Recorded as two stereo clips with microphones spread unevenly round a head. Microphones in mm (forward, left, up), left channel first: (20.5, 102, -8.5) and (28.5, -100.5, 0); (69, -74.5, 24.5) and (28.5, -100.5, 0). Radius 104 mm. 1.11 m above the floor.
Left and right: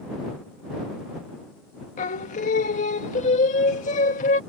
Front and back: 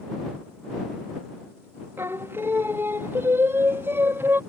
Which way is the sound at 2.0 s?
150° left.